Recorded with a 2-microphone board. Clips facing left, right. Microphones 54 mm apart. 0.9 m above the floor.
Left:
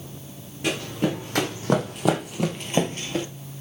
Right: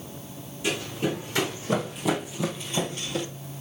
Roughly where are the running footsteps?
Left.